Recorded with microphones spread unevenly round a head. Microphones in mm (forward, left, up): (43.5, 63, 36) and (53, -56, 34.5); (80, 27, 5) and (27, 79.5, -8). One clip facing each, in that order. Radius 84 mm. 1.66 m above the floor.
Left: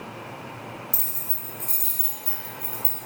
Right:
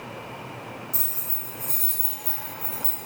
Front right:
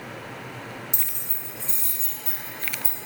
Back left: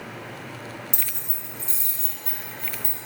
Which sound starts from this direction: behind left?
Keys jangling, at 0.9 s.